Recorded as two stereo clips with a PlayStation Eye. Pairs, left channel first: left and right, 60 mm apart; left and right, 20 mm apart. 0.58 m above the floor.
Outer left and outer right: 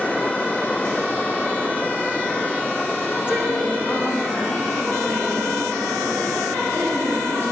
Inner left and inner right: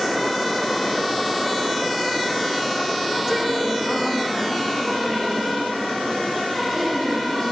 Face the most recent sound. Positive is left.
turn(degrees=35)  # may be behind; listen again after turning